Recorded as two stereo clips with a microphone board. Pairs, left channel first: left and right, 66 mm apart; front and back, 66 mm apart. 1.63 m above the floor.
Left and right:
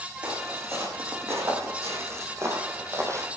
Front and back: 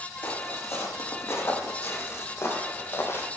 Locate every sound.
0.2 s footsteps: 45° right, 6 m; by 3.3 s 50° right, 3.5 m